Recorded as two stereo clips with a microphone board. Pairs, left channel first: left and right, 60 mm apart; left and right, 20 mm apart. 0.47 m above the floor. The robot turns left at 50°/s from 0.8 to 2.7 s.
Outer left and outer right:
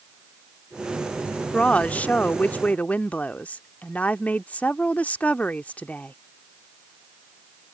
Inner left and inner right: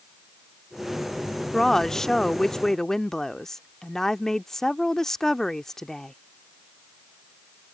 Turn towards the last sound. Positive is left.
turn(degrees=25)  # may be behind; listen again after turning